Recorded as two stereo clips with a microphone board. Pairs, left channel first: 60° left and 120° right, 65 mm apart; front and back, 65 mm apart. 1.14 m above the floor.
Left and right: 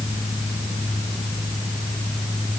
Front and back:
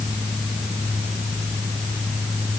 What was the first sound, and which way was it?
Only background noise.